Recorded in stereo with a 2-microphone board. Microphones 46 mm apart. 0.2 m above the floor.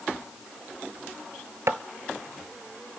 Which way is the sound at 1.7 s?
75° right (ahead or behind).